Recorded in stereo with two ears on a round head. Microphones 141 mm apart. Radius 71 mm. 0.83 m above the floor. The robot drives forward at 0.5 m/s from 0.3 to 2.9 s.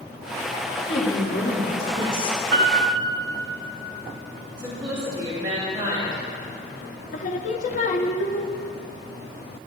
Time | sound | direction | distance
0.9 | a woman speaking | 65° left (ahead or behind) | 3 m
2.5 | a piano | 60° right (ahead or behind) | 2 m
4.6 | a woman speaking | 30° right (ahead or behind) | 3.5 m
7.1 | singing | 50° left (ahead or behind) | 0.5 m